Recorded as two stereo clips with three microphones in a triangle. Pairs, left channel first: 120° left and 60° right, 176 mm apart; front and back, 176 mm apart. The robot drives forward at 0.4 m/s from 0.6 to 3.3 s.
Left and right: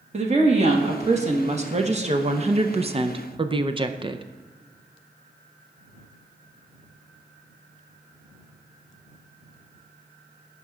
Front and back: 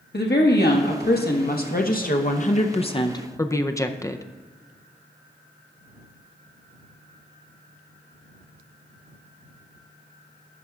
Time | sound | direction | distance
0.1 | a woman speaking | 10° right | 1.3 m